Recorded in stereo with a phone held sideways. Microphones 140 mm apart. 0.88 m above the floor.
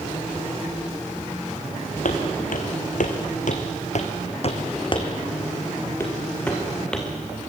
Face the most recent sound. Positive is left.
turn(degrees=5)  # may be behind; listen again after turning